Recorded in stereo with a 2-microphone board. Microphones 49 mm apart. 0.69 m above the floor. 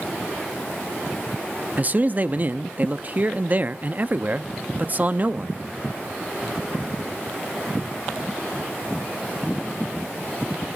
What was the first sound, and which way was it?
A man speaking, 35° right (ahead or behind).